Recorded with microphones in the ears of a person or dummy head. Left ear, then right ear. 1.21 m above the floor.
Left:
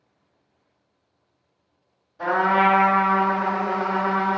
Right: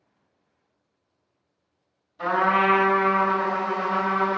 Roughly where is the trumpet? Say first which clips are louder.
Left 2 dB; right.